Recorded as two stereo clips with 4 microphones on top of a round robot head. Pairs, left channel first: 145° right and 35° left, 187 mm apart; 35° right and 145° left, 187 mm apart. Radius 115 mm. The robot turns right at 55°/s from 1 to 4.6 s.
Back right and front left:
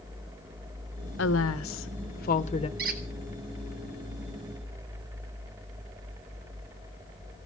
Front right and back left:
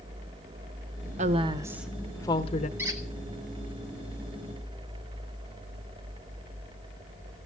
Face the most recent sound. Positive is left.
turn(degrees=165)